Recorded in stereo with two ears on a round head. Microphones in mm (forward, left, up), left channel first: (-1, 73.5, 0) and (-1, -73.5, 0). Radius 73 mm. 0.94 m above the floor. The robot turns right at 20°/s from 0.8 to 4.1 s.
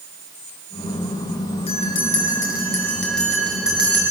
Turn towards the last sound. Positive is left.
turn(degrees=-165)